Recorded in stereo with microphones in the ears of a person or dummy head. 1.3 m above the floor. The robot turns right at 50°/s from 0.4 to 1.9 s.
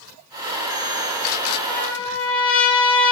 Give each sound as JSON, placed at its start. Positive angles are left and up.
{"t": 1.7, "sound": "a trumpet", "side_deg": 20, "distance_m": 1.7}